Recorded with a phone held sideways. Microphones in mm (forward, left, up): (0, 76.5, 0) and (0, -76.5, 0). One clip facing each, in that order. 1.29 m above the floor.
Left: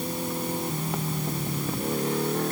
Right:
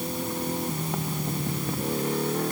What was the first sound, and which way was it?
Only background noise.